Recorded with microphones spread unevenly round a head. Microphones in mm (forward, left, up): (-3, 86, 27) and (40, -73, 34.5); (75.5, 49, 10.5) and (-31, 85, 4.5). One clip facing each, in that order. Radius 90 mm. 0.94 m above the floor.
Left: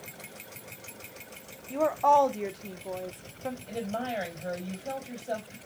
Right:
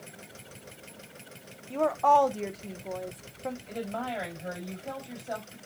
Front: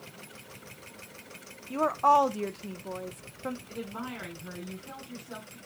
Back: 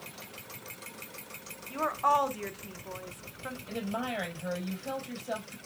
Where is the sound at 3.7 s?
170° left, 5 m.